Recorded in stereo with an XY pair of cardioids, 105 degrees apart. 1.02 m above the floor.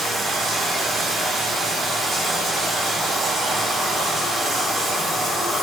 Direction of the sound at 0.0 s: 45° right.